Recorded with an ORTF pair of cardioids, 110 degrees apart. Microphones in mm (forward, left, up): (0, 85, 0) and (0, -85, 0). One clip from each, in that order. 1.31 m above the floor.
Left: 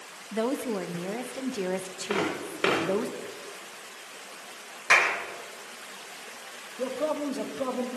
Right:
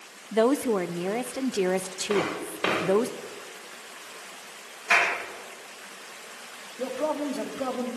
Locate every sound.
0.3 s a woman speaking: 30° right, 0.7 m
2.1 s footsteps: 25° left, 9.5 m
4.9 s a clap: 60° left, 4 m
6.8 s a man speaking: 10° left, 3 m